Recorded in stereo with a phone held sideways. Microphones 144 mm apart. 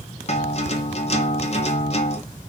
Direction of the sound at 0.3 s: 50° left (ahead or behind).